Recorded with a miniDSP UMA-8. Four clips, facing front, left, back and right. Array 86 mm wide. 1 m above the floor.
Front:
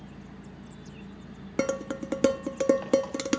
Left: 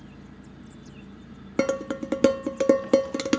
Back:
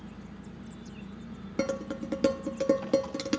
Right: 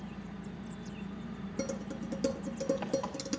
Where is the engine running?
65° right, 6.5 m.